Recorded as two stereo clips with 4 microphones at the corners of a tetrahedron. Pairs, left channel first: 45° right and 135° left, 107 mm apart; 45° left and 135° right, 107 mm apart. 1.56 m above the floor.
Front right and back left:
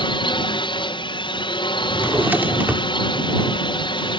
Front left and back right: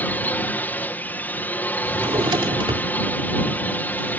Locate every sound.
0.0 s a drone: 25° right
1.8 s a drawer: 155° right